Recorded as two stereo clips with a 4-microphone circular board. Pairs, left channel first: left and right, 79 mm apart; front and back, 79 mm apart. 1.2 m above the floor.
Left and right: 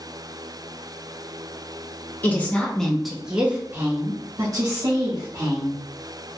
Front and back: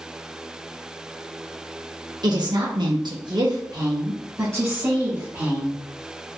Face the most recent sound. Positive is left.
turn(degrees=-110)